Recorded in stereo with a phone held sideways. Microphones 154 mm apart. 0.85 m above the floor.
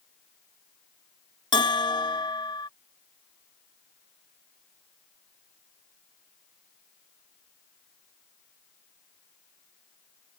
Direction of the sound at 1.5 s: 30° left (ahead or behind).